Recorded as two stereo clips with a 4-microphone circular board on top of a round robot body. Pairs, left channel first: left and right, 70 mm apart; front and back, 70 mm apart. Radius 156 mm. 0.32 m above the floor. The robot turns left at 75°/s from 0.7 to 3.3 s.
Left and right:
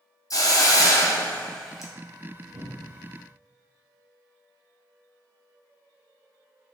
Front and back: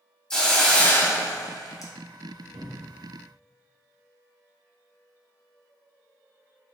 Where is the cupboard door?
160° left, 1.0 m; by 3.0 s 120° left, 1.0 m.